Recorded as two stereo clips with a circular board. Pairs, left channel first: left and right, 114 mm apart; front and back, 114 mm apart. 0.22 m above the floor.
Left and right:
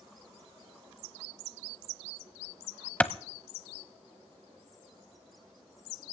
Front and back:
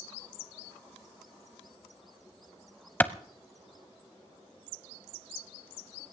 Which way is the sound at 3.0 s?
35° left.